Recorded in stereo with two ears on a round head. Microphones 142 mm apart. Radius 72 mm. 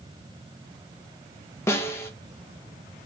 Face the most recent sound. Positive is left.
turn(degrees=15)  # may be behind; listen again after turning